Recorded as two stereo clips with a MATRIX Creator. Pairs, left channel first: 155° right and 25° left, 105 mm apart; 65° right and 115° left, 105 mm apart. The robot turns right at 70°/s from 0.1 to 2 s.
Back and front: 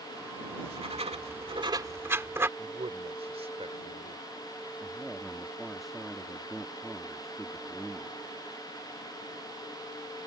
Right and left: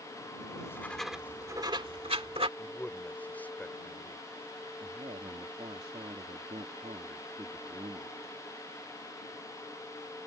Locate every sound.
0.5 s writing: 15° right; by 2.5 s 90° left
2.6 s a man speaking: 5° left
4.8 s a man speaking: 115° left